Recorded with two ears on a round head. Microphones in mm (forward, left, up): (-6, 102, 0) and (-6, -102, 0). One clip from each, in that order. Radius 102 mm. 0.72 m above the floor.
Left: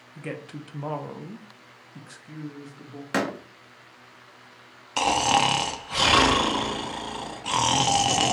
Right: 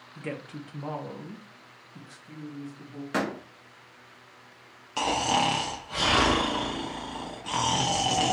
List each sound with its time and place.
0.1 s a woman speaking: 10° left (ahead or behind), 0.7 m; by 3.0 s 30° left (ahead or behind), 1.1 m
3.1 s a door slam: 25° left (ahead or behind), 0.7 m
5.0 s snoring: 25° left (ahead or behind), 0.6 m